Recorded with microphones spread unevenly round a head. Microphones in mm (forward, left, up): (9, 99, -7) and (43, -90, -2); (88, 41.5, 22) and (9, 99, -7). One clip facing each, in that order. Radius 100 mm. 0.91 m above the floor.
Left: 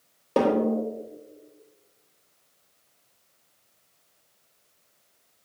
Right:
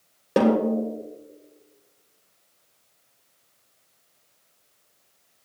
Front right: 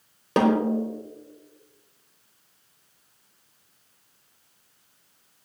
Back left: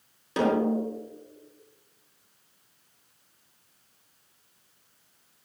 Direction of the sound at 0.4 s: 5° right.